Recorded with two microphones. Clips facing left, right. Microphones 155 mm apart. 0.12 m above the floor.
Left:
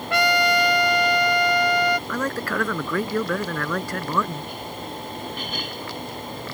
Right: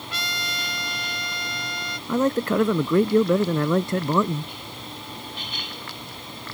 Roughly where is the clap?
I don't hear a clap.